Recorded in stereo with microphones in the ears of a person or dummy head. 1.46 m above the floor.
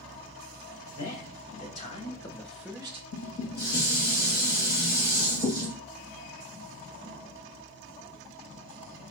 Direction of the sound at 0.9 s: 60° left (ahead or behind).